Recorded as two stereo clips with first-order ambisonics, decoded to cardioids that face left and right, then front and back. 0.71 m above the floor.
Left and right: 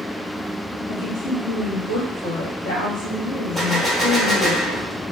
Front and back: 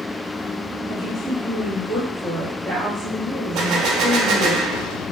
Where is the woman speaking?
90° left, 1.4 m.